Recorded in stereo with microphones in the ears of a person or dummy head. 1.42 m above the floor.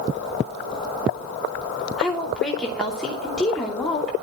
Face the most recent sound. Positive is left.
turn(degrees=0)  # may be behind; listen again after turning